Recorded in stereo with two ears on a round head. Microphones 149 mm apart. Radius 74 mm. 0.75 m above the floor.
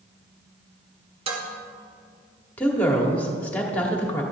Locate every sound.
1.3 s dishes clattering: 35° right (ahead or behind), 1.5 m
2.6 s a woman speaking: 10° left (ahead or behind), 1.7 m